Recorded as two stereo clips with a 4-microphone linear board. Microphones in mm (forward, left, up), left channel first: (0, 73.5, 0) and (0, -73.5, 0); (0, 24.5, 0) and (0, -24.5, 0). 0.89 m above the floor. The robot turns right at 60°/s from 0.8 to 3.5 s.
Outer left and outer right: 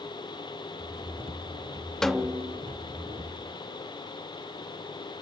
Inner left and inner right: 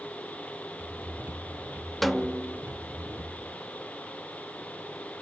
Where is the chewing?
No chewing in this recording.